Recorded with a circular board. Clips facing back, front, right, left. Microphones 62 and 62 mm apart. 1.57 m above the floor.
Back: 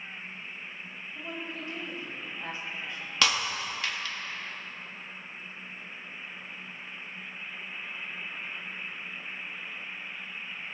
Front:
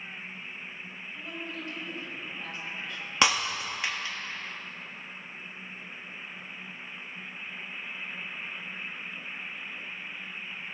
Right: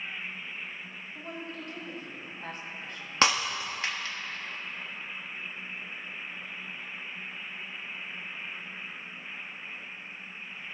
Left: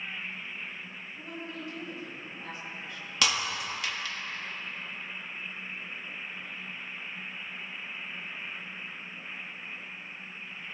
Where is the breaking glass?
55° right, 1.2 m.